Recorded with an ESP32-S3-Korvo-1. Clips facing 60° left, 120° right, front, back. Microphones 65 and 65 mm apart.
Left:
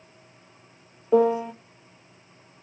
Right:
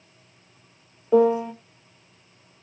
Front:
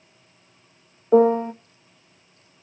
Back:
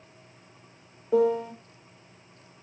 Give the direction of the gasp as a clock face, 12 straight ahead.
No gasp in this recording.